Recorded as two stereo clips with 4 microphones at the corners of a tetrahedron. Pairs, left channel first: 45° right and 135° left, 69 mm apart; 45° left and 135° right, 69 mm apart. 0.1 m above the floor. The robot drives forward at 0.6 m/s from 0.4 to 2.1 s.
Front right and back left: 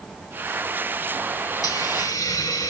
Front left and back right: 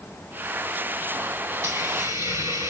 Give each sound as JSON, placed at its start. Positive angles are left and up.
{"t": 1.6, "sound": "a hiss", "azimuth_deg": -80, "distance_m": 4.5}